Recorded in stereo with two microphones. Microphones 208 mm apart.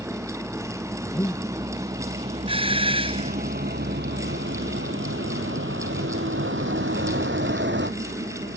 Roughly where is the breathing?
Centre.